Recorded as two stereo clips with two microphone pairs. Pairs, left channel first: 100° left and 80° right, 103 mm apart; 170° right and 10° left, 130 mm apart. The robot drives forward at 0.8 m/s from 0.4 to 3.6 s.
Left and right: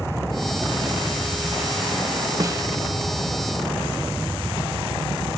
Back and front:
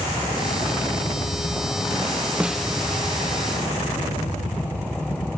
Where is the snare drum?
60° right, 0.7 m; by 2.7 s 95° right, 0.7 m.